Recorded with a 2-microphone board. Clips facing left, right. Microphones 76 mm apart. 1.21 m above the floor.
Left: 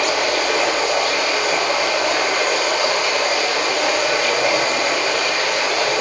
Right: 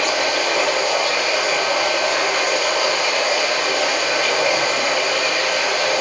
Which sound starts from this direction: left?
Running water, at 0.0 s.